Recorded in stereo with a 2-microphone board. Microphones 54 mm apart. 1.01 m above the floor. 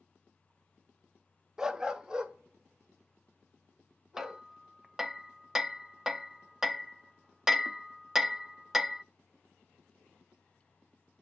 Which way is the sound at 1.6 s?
10° right (ahead or behind).